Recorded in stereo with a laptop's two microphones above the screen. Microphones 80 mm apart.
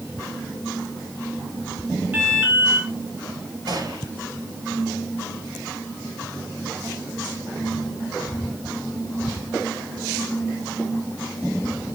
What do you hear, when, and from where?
2.1 s an alarm: 25° right (ahead or behind), 2.5 m
3.7 s a gunshot: 55° right (ahead or behind), 5 m